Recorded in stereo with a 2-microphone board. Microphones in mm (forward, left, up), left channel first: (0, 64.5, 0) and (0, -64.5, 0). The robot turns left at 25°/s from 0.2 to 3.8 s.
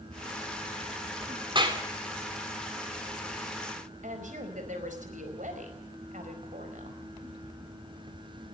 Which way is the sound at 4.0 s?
80° right.